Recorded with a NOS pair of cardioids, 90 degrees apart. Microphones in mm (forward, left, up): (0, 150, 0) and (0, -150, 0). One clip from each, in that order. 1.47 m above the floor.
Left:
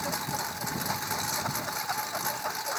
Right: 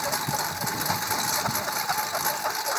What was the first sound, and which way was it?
A lawn mower, 35° right.